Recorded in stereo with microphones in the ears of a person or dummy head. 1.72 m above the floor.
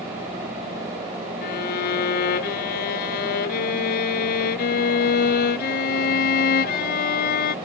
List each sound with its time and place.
1.4 s a violin: 55° left (ahead or behind)